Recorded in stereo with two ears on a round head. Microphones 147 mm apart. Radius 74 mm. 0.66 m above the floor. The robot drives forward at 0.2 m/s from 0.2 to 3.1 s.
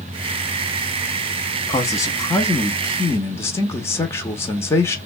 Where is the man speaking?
20° left (ahead or behind), 0.7 m; by 5.0 s 15° left (ahead or behind), 0.8 m.